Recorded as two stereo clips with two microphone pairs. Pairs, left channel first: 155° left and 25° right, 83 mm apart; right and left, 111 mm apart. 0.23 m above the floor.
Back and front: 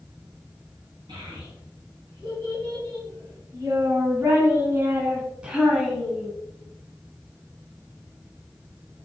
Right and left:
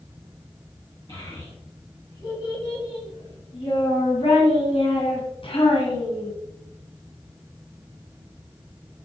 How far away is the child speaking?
About 2.5 m.